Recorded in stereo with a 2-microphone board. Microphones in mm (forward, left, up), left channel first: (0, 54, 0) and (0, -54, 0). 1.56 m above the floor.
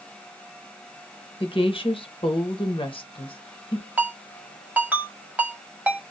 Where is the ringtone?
15° right (ahead or behind), 1.7 m.